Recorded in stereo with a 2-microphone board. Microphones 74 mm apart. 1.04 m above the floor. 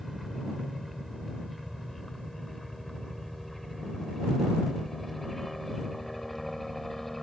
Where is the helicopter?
Centre (ahead or behind); by 7.2 s 5° left (ahead or behind).